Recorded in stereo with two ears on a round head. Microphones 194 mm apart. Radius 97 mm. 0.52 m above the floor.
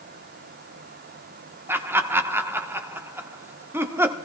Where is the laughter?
10° right (ahead or behind), 1.2 m.